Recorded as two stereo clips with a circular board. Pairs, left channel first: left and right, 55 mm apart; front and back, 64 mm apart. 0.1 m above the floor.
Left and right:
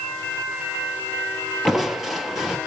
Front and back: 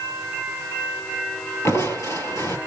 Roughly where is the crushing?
Ahead.